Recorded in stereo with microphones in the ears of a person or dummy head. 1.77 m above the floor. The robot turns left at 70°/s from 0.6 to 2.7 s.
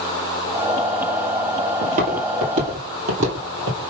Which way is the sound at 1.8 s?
35° right (ahead or behind).